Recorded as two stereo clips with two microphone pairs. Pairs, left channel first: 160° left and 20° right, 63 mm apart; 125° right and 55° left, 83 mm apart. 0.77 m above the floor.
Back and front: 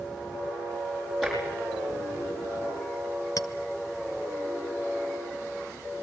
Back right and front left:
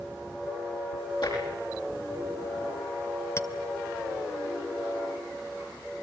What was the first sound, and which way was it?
Tapping, 110° right.